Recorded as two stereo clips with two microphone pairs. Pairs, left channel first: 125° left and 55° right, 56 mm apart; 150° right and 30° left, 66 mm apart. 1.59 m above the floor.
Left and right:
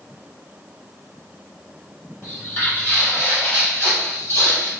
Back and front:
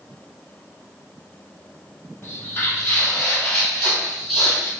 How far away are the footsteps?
About 2.0 m.